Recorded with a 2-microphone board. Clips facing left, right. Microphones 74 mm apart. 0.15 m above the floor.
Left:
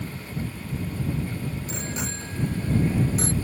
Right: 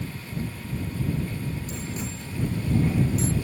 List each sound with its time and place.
1.7 s a bicycle bell: 80° left; by 3.3 s 75° left (ahead or behind)